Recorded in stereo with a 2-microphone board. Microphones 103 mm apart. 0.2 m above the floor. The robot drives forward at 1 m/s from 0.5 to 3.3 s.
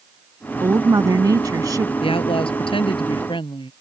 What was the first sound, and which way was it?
A woman speaking, 35° right (ahead or behind).